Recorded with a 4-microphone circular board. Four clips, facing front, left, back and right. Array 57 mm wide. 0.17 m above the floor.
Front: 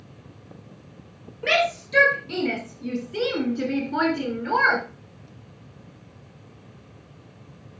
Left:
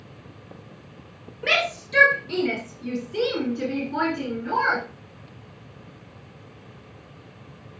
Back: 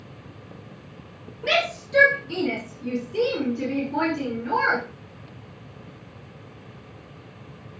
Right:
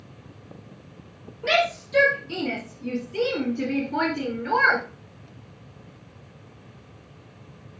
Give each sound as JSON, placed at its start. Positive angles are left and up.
{"t": 1.4, "sound": "a shout", "azimuth_deg": 45, "distance_m": 3.0}